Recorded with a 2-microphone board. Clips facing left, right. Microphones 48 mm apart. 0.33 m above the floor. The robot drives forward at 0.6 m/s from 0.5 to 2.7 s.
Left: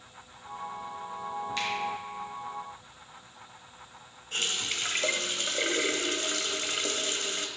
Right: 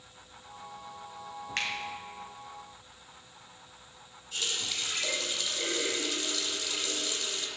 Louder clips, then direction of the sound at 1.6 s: Right 1 dB; 50° right (ahead or behind).